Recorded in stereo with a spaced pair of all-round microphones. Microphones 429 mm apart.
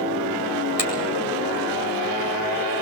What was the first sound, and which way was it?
A finger snap, 50° right (ahead or behind).